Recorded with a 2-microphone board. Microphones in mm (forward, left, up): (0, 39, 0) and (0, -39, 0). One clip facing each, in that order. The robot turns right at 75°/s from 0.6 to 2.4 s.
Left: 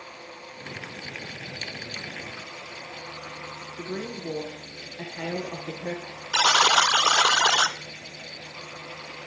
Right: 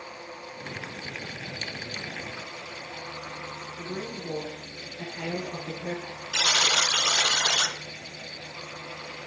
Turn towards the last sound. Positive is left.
turn(degrees=70)  # may be behind; listen again after turning